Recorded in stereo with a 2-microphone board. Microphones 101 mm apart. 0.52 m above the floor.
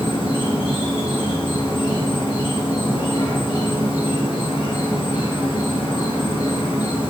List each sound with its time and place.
0.0 s an insect: 60° left (ahead or behind), 1.4 m